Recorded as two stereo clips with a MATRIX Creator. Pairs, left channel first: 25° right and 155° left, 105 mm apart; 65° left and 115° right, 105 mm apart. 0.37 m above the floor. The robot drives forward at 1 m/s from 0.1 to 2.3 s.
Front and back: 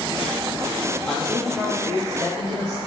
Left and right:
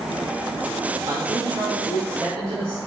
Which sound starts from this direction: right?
A man speaking, at 1.1 s.